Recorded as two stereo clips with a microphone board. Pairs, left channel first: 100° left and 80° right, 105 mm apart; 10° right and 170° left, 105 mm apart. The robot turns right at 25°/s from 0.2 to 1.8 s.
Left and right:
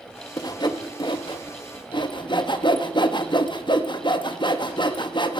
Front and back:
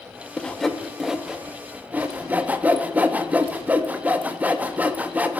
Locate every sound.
0.4 s sawing: 65° left, 0.9 m; by 5.4 s 105° left, 0.9 m